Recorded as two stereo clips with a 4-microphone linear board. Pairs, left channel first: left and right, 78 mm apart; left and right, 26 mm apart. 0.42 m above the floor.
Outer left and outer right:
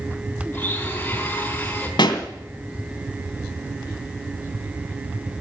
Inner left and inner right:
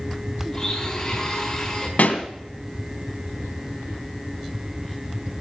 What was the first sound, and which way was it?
A blender, 20° left (ahead or behind).